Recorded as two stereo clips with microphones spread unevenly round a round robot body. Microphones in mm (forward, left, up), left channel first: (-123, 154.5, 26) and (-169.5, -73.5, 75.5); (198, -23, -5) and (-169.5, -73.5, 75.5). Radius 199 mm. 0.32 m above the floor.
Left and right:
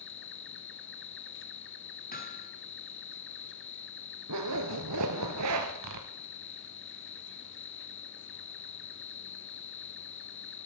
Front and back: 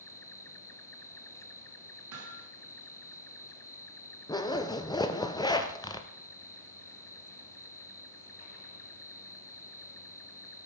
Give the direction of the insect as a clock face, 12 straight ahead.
9 o'clock.